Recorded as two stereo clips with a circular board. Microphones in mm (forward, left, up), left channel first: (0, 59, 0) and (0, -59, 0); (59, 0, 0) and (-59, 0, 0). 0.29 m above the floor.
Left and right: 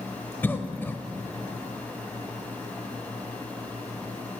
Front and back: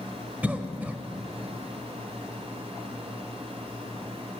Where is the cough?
125° left, 0.9 m.